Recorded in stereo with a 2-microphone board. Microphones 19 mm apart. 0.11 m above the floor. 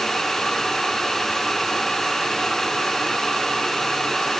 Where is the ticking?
No ticking in this recording.